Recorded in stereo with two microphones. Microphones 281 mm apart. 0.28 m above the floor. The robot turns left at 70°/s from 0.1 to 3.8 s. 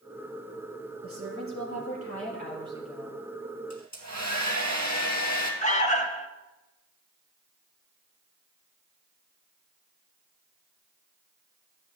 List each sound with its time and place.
1.0 s a woman speaking: 50° right, 5 m; by 3.2 s 160° left, 5 m
3.7 s a hair dryer: 75° left (ahead or behind), 2 m; by 5.5 s 80° left, 2 m
5.6 s an alarm: 25° left (ahead or behind), 0.7 m